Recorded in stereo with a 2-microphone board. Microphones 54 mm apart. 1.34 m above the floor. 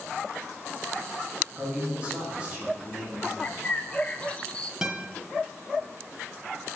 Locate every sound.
1.6 s a man speaking: 20° right (ahead or behind), 1.8 m
3.4 s a bird: 20° left (ahead or behind), 0.5 m
4.8 s a guitar: 10° right (ahead or behind), 0.7 m